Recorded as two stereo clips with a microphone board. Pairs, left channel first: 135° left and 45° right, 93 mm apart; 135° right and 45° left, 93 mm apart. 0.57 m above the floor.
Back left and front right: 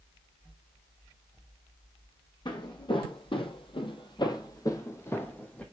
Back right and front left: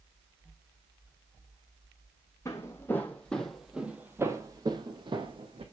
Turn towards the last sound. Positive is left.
turn(degrees=60)